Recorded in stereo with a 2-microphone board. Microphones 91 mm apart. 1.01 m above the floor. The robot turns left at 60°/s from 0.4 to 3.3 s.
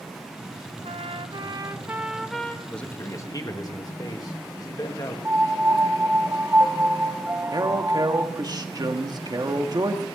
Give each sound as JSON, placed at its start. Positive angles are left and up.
{"t": 0.8, "sound": "a trumpet", "azimuth_deg": -95, "distance_m": 0.7}
{"t": 2.7, "sound": "a man speaking", "azimuth_deg": 175, "distance_m": 1.7}
{"t": 5.2, "sound": "a piano", "side_deg": -20, "distance_m": 0.7}
{"t": 7.5, "sound": "a man speaking", "side_deg": -45, "distance_m": 1.3}